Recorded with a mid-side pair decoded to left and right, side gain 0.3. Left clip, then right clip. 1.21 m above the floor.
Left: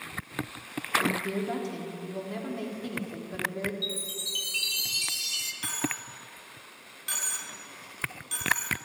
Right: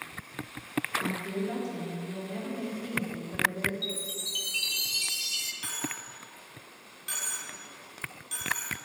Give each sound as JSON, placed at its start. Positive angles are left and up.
{"t": 1.0, "sound": "a woman speaking", "azimuth_deg": 60, "distance_m": 3.5}
{"t": 3.8, "sound": "a chime", "azimuth_deg": 15, "distance_m": 3.0}
{"t": 5.6, "sound": "a dropped coin", "azimuth_deg": 35, "distance_m": 4.5}